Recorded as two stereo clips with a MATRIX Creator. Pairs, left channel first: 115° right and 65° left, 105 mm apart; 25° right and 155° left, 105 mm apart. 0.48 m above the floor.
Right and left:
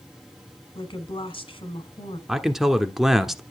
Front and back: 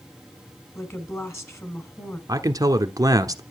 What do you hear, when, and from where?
0.8 s a woman speaking: 85° right, 2.5 m
2.3 s a man speaking: 155° left, 1.2 m